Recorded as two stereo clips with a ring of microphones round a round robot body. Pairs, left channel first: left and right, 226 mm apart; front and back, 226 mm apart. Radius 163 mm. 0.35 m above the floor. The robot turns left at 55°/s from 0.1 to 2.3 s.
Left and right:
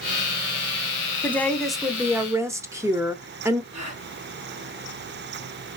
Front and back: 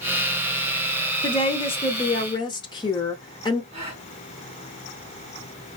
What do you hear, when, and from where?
1.2 s a woman speaking: 25° left, 0.9 m; by 3.6 s 35° right, 0.9 m
3.7 s a gasp: 110° right, 3.5 m